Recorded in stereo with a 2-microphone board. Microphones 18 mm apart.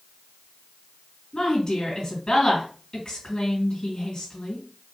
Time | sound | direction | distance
1.3 | a woman speaking | 55° left (ahead or behind) | 3 m